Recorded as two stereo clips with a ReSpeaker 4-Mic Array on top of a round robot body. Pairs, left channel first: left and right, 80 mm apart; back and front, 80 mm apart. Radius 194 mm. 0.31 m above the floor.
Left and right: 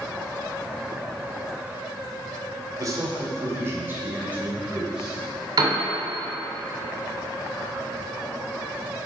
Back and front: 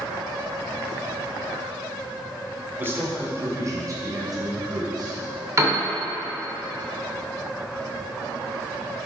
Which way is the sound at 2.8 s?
60° right.